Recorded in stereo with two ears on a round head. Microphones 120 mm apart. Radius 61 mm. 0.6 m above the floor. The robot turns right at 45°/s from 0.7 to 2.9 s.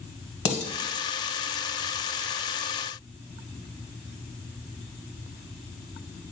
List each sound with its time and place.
0.5 s dishes clattering: 55° left (ahead or behind), 1.7 m